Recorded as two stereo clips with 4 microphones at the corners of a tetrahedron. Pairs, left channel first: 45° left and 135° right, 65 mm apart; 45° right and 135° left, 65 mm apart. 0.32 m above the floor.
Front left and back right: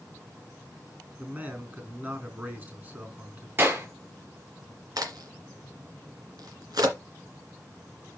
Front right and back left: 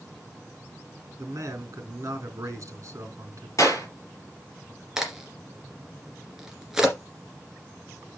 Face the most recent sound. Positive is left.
turn(degrees=-145)